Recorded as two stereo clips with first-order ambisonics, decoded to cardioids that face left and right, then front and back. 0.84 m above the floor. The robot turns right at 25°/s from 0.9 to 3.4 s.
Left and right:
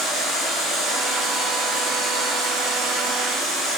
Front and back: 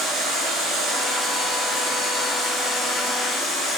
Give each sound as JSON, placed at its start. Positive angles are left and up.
{"t": 0.0, "sound": "running water", "azimuth_deg": -140, "distance_m": 1.7}